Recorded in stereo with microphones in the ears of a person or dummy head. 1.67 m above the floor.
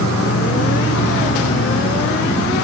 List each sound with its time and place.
0.0 s an insect: 75° left (ahead or behind), 1.2 m